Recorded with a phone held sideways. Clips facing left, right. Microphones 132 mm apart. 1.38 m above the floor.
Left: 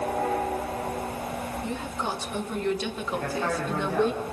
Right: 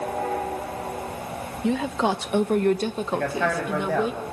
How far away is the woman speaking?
About 1.5 m.